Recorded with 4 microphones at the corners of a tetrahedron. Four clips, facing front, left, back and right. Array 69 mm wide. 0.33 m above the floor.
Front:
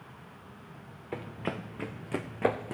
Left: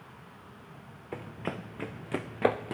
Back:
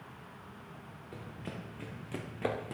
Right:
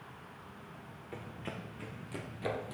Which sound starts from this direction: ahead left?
Running footsteps, at 1.1 s.